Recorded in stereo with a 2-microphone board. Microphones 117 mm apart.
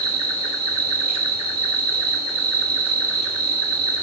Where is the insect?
60° left (ahead or behind), 1.6 m.